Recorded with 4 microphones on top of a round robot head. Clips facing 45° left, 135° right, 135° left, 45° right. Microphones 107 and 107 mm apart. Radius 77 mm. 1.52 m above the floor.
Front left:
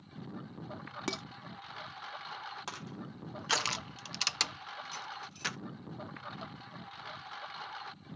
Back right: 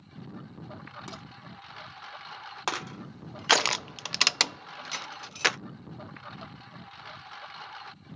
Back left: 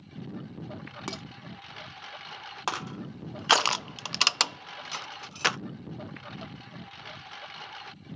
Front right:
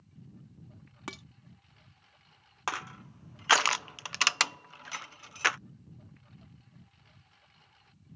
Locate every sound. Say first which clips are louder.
0.0 s a lawn mower: back right 1 dB, back left 14 dB; 135° left
1.1 s dishes clattering: front left 8 dB, back left 5 dB; 75° left
2.7 s crushing: back right 9 dB, back left 3 dB; 160° right